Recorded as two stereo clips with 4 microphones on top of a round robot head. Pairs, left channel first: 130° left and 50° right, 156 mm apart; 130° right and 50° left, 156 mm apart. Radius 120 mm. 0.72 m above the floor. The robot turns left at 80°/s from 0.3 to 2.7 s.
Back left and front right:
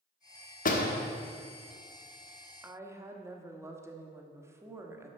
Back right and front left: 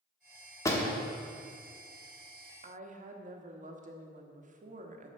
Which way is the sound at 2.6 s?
25° left.